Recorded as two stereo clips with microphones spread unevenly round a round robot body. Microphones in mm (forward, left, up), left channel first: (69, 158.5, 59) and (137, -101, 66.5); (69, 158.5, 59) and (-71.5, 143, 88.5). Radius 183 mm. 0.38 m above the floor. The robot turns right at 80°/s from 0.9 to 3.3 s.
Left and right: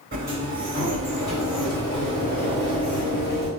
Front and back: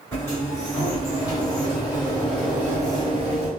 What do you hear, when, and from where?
0.1 s a sliding door: 40° right, 1.7 m; by 3.5 s 155° left, 1.7 m